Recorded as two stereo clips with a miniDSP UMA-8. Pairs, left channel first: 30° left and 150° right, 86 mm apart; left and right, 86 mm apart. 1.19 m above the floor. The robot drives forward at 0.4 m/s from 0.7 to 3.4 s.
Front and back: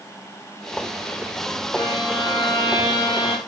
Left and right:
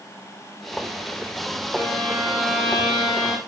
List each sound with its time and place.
1.7 s a violin: 10° right, 6 m